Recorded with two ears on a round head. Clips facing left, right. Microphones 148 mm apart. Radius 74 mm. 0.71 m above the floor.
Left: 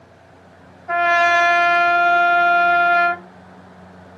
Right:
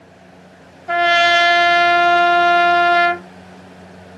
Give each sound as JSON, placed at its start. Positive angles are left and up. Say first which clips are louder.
{"t": 0.9, "sound": "a trumpet", "louder": "right 2 dB", "side_deg": -35, "distance_m": 0.6}